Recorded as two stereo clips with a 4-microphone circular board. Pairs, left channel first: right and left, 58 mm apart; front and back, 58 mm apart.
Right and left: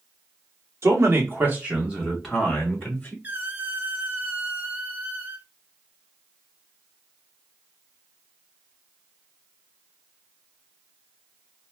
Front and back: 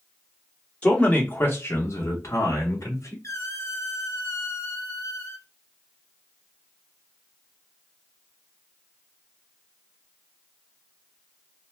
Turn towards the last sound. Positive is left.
turn(degrees=30)